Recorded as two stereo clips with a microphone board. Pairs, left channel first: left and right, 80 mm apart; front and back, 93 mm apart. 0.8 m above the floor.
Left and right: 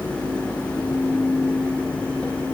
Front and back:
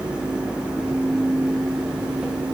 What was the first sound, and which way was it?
Only background noise.